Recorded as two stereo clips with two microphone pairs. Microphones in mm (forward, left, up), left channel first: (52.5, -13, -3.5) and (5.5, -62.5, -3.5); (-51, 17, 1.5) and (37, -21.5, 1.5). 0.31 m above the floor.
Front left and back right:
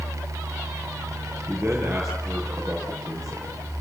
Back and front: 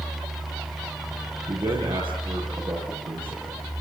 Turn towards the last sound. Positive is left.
turn(degrees=-50)